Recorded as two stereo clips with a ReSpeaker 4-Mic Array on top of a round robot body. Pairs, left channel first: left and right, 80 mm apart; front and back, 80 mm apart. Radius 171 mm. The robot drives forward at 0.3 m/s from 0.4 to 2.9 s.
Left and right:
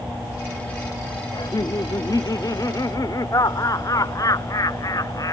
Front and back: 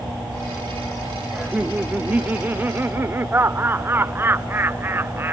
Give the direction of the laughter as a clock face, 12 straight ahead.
9 o'clock.